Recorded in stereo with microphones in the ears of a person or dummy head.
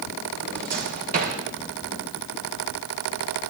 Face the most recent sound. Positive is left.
turn(degrees=-50)  # may be behind; listen again after turning